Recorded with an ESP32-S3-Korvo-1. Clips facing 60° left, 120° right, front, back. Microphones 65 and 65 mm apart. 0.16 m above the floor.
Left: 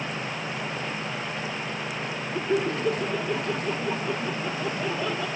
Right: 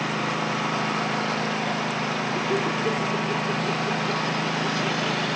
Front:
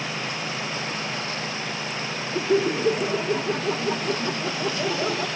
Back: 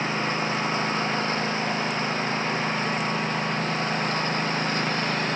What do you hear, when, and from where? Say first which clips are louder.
0.0 s a lawn mower: right 6 dB, back 4 dB; 130° right; by 5.4 s 135° right
2.3 s laughter: left 2 dB, front 4 dB; 25° right